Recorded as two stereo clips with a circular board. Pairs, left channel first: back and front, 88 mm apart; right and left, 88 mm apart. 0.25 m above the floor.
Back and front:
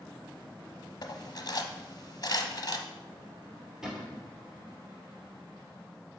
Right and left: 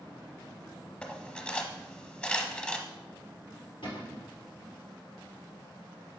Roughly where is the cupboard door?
Right.